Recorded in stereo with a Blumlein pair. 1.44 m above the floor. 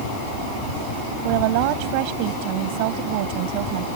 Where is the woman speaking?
45° right.